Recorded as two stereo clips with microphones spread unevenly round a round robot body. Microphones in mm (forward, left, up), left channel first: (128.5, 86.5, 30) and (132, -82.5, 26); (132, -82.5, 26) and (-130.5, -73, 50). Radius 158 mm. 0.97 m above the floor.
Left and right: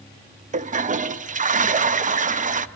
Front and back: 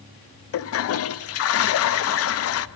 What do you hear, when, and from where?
0.5 s a toilet flushing: 40° right, 0.5 m